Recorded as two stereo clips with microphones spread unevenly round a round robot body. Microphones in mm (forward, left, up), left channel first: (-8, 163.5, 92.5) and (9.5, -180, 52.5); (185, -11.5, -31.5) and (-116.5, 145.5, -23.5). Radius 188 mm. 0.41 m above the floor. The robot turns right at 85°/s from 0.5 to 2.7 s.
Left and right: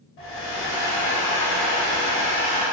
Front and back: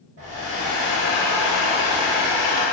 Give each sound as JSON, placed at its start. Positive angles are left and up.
{"t": 0.2, "sound": "a hair dryer", "azimuth_deg": 100, "distance_m": 1.2}